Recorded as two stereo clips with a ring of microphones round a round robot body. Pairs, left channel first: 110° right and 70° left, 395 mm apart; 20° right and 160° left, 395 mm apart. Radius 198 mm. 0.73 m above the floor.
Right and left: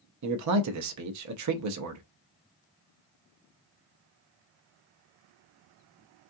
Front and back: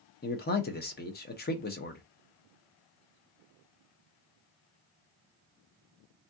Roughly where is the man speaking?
Ahead left.